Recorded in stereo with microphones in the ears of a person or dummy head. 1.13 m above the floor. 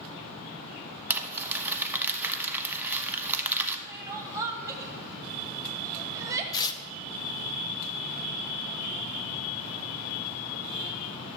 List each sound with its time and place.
1.1 s crumpling: 5° right (ahead or behind), 1.1 m
3.9 s crying: 15° right (ahead or behind), 0.7 m
6.5 s tearing paper: 25° left (ahead or behind), 0.8 m